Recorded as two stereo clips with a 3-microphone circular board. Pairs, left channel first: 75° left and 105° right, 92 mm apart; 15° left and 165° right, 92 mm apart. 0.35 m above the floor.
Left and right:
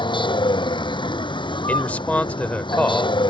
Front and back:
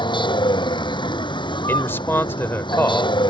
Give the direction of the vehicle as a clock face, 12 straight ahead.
10 o'clock.